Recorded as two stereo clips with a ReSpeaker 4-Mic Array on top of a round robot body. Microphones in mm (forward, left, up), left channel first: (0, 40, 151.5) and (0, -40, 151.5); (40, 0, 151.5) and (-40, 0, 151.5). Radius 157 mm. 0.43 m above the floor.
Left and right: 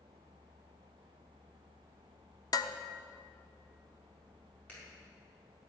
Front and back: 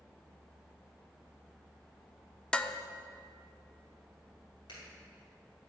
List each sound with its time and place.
2.5 s dishes clattering: 75° left, 0.9 m
4.7 s a clap: 20° left, 5.5 m